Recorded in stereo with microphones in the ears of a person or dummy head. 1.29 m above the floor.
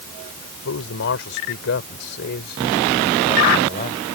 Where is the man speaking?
70° left (ahead or behind); by 4.0 s 40° left (ahead or behind).